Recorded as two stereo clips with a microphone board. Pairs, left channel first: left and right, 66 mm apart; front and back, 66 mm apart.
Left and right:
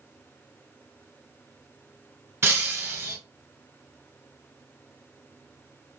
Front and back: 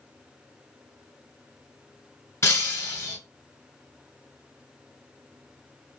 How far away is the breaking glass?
About 1.4 m.